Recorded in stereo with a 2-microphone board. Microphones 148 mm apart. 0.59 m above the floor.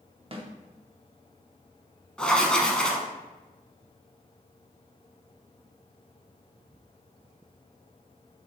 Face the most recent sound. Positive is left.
turn(degrees=5)  # may be behind; listen again after turning